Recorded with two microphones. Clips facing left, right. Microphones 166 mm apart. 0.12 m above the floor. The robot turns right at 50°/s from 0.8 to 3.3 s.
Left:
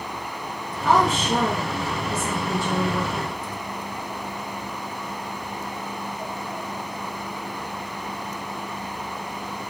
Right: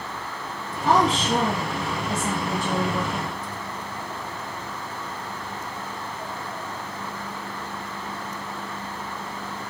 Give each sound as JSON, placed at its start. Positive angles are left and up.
{"t": 0.8, "sound": "a woman speaking", "azimuth_deg": -120, "distance_m": 1.8}